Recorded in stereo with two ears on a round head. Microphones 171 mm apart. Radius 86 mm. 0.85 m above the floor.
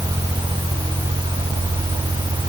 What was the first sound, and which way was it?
Only background noise.